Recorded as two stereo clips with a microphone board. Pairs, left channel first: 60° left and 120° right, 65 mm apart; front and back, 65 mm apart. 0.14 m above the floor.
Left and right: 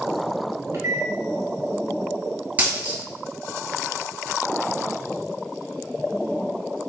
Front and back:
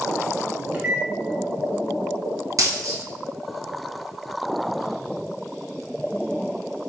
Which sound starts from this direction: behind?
A dropped coin, at 2.6 s.